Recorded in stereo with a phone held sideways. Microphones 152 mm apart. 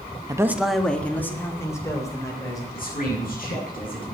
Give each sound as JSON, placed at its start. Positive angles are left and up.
{"t": 0.3, "sound": "a man speaking", "side_deg": -25, "distance_m": 0.8}
{"t": 2.7, "sound": "a man speaking", "side_deg": 65, "distance_m": 7.5}